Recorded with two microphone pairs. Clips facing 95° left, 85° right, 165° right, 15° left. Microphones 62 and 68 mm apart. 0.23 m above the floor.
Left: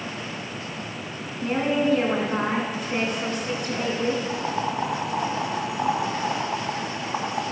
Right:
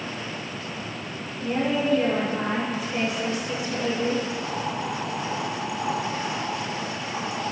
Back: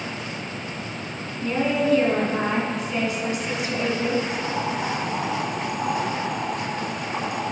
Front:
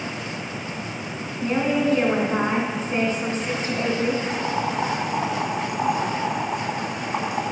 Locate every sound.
1.4 s a woman speaking: 65° left, 2 m
4.3 s boiling: 70° left, 1.6 m